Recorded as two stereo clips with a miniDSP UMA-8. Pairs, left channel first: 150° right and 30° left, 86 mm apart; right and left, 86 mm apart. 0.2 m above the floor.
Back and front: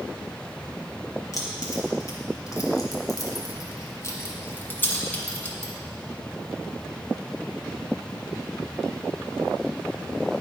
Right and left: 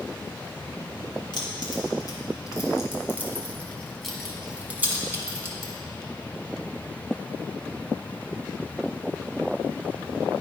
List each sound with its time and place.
1.3 s keys jangling: 105° right, 1.7 m; by 5.7 s 135° left, 1.5 m